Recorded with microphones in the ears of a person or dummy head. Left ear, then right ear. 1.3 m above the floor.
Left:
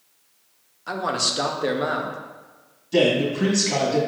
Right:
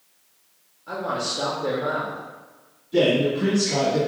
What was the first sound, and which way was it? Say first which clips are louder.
A man speaking: left 3 dB; 55° left (ahead or behind).